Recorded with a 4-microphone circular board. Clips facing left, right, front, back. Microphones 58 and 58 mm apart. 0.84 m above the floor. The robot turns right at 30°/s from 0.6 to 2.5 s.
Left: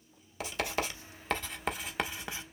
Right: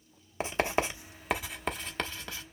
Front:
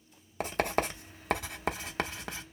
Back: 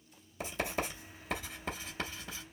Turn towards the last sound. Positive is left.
turn(degrees=25)